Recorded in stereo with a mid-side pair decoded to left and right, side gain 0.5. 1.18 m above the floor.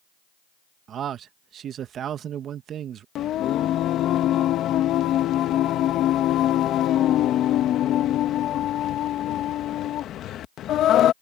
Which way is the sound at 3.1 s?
65° left.